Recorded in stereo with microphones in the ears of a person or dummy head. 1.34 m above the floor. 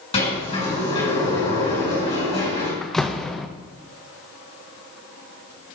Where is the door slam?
Centre (ahead or behind), 0.6 m.